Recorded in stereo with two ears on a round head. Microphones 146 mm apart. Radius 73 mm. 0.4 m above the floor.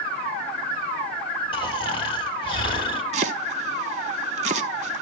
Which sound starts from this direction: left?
Snoring, at 1.5 s.